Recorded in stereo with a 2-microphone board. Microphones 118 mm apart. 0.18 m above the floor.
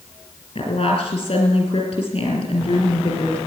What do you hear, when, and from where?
0.6 s a woman speaking: 50° left (ahead or behind), 4.5 m